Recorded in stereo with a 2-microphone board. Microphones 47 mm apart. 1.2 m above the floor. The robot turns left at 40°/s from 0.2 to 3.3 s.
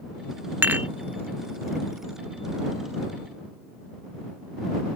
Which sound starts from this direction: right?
Dishes clattering, at 0.6 s.